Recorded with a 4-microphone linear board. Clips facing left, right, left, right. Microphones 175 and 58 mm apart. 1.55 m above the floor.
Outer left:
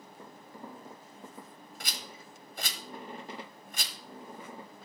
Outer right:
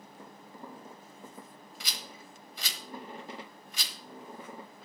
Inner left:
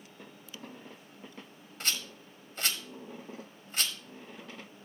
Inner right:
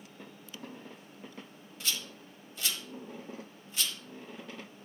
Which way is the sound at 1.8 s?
50° left (ahead or behind).